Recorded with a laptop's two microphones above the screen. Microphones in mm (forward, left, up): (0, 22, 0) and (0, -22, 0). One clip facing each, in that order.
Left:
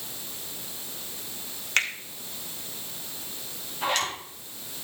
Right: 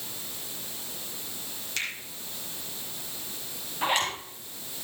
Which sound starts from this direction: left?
A finger snap, at 1.8 s.